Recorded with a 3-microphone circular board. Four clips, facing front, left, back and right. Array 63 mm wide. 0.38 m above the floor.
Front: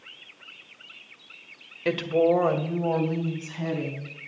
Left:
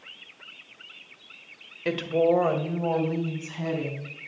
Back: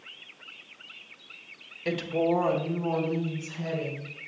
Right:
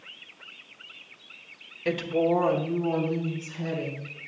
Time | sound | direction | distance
1.9 | a woman speaking | 20° left | 1.5 m